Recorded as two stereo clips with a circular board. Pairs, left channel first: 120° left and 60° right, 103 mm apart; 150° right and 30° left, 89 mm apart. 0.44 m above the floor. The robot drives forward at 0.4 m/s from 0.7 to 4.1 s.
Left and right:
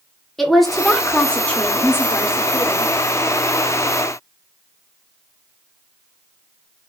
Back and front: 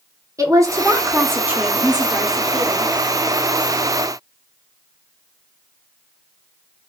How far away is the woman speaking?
About 0.9 m.